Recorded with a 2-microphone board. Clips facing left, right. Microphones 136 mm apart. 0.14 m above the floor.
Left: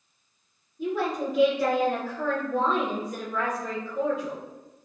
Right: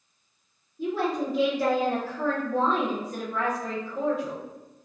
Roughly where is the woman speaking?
Right.